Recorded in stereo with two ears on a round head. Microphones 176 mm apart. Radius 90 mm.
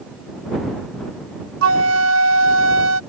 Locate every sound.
1.6 s a flute: 85° right